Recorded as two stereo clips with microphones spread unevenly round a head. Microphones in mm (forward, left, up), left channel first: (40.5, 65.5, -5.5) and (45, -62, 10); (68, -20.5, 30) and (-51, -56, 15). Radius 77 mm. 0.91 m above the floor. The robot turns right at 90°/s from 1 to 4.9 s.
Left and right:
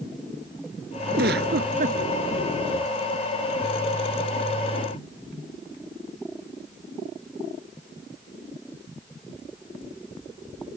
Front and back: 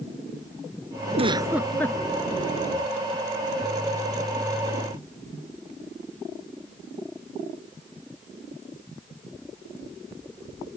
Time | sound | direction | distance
1.1 | a giggle | 125° right | ?